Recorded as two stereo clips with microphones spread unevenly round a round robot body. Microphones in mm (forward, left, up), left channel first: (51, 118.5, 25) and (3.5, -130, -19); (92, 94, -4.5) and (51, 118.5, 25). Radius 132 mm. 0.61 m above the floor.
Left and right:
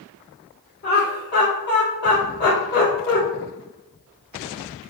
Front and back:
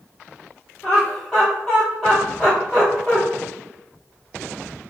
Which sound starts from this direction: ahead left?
Laughter, at 0.8 s.